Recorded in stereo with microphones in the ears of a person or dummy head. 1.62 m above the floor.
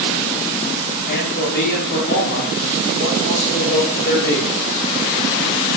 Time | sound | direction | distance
1.1 | a man speaking | 55° left (ahead or behind) | 5 m